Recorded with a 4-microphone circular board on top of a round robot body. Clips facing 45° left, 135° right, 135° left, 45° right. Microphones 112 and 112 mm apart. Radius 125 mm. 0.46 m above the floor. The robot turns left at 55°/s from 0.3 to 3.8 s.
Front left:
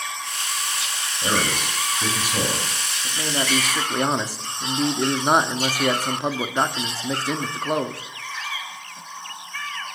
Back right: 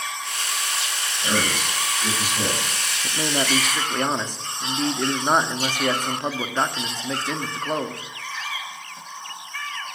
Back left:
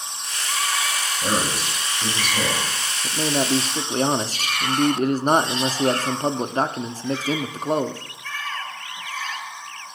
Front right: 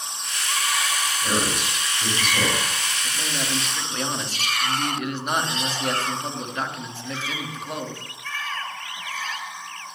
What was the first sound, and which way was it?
A man speaking, 105° left.